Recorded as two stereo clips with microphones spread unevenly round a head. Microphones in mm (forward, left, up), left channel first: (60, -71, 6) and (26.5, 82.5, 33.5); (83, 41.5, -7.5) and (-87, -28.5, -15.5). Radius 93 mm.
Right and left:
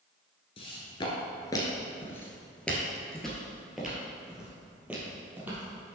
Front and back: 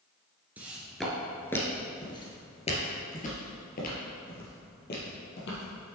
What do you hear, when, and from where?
0.6 s footsteps: 85° right, 1.8 m; by 6.0 s 30° left, 3.5 m